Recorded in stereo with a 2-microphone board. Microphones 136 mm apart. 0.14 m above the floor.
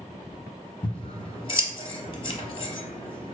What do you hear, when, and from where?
0.8 s scissors: 40° left (ahead or behind), 0.7 m